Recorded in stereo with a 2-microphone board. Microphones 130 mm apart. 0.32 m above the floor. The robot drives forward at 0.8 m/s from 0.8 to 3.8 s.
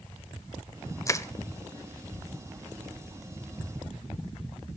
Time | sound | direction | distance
1.1 | crushing | 25° left (ahead or behind) | 0.8 m